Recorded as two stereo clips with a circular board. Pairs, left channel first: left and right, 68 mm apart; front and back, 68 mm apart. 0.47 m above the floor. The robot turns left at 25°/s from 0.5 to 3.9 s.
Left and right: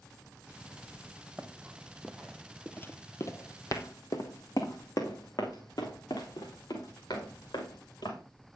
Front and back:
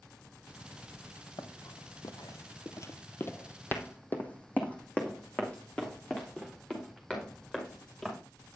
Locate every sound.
1.4 s running footsteps: straight ahead, 1.4 m; by 8.2 s 80° left, 5 m